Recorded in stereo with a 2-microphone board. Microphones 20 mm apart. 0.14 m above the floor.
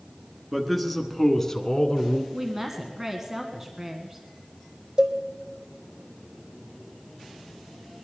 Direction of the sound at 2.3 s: 20° right (ahead or behind).